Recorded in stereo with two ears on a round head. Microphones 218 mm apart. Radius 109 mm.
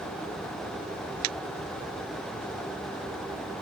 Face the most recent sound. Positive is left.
No sound to turn to.